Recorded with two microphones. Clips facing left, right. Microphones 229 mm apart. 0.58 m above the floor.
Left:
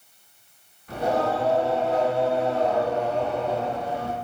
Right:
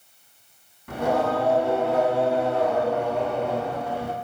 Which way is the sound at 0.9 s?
85° right.